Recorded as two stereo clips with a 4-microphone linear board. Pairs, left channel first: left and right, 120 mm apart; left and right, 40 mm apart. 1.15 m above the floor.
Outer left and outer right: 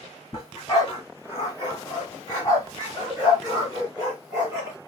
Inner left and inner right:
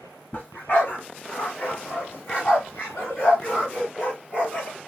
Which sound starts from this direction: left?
A dog barking, at 0.3 s.